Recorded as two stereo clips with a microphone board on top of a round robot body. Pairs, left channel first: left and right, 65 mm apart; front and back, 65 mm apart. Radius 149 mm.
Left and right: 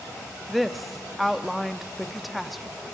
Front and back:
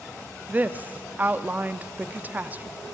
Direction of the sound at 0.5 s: Straight behind.